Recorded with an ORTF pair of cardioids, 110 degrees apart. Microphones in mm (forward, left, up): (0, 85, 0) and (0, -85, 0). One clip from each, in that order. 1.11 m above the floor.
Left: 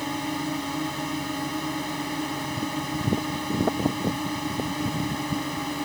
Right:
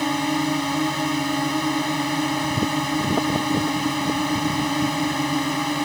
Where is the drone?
40° right.